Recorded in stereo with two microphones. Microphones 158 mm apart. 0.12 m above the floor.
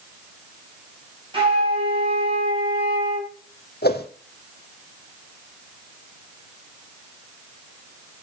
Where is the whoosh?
80° left, 1.5 m.